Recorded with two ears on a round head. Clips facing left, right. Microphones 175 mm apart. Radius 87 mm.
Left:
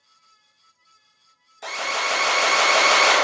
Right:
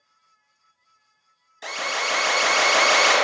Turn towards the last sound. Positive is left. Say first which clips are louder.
# left 1 dB
turn(degrees=-10)  # may be behind; listen again after turning